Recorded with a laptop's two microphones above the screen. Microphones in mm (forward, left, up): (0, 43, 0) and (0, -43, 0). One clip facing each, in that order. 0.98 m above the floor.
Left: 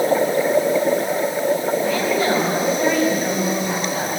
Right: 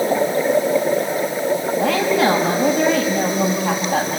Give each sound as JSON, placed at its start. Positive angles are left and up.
{"t": 1.8, "sound": "a woman speaking", "side_deg": -75, "distance_m": 7.0}